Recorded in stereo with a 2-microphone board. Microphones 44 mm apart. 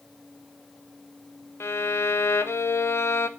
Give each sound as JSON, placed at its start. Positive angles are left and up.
{"t": 1.6, "sound": "a violin", "side_deg": 80, "distance_m": 0.6}